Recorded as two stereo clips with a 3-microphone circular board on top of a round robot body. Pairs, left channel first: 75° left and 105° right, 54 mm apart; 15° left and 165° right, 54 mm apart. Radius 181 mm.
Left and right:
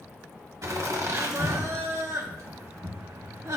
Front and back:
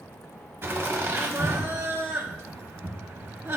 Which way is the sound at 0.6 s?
125° right.